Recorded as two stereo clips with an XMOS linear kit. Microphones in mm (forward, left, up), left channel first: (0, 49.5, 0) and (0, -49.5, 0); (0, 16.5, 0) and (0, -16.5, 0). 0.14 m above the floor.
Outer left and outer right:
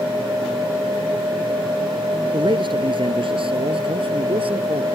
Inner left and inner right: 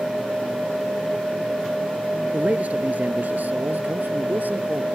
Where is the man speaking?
50° right (ahead or behind); by 4.9 s 65° right (ahead or behind).